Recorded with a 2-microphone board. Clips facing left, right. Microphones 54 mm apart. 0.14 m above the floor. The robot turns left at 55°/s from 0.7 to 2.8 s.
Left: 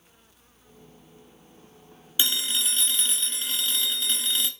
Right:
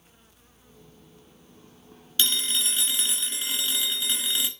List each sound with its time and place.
2.2 s a phone ringing: 25° left, 1.0 m; by 4.5 s 10° right, 1.0 m